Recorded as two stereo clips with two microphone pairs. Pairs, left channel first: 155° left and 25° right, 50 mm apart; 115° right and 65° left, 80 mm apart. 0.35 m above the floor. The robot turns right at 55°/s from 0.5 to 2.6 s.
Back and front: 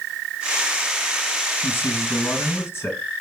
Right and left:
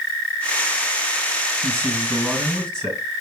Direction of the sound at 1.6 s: 115° left.